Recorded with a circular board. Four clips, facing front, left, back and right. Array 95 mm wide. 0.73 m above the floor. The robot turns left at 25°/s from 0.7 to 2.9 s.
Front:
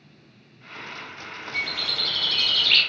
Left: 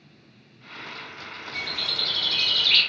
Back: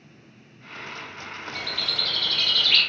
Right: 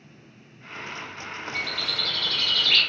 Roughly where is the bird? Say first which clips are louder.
Even, front 2 dB; ahead.